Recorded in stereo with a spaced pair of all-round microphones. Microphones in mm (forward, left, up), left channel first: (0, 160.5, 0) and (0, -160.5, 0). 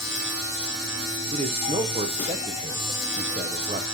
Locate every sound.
0.0 s a machine running: 35° left (ahead or behind), 3 m
1.3 s a man speaking: 20° right (ahead or behind), 0.8 m